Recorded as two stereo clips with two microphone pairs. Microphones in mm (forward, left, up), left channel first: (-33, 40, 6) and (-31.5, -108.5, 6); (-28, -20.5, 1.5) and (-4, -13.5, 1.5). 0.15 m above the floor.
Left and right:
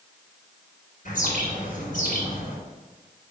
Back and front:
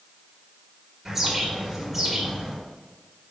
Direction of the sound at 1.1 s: 85° left.